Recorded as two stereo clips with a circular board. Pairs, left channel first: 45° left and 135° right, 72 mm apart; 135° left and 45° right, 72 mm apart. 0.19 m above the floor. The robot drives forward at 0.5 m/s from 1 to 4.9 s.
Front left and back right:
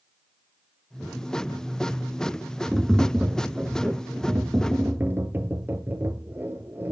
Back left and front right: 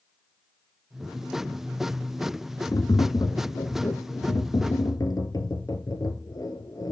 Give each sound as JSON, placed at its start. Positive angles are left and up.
{"t": 2.7, "sound": "tapping", "azimuth_deg": 140, "distance_m": 0.9}